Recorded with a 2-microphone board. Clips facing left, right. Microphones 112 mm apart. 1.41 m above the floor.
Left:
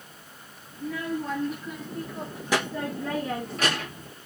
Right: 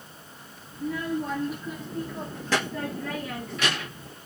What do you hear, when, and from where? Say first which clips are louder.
0.7 s a child speaking: right 2 dB; 15° right (ahead or behind), 1.4 m; by 4.1 s 50° left (ahead or behind), 0.9 m